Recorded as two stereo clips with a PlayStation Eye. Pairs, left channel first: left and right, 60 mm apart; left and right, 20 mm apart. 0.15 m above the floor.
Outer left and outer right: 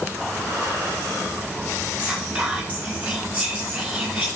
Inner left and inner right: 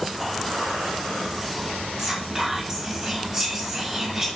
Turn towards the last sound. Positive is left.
turn(degrees=-25)  # may be behind; listen again after turning